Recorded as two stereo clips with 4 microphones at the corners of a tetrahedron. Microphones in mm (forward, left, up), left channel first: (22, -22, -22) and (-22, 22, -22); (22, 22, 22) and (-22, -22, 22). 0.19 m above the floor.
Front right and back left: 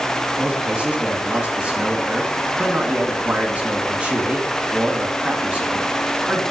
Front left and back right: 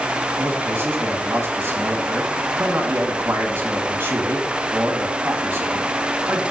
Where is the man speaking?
165° right, 2 m.